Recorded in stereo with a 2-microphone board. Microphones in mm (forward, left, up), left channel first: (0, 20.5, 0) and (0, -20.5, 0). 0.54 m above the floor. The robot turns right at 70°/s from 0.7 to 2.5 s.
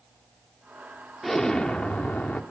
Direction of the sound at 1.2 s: 5° left.